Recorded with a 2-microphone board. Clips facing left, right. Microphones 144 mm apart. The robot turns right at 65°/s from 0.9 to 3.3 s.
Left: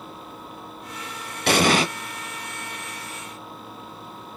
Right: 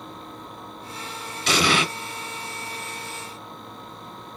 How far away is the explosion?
About 0.8 m.